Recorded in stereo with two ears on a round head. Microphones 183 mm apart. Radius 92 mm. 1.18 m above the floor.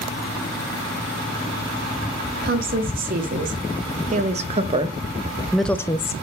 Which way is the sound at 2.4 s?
50° right (ahead or behind).